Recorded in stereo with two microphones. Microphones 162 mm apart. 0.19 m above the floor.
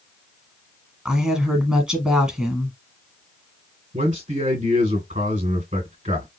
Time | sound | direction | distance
1.1 | a woman speaking | 5° right (ahead or behind) | 1.2 m
3.9 | a man speaking | 55° right (ahead or behind) | 2.5 m